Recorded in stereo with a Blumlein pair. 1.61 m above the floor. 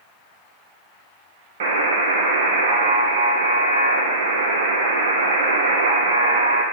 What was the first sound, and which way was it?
A buzzer, 55° right.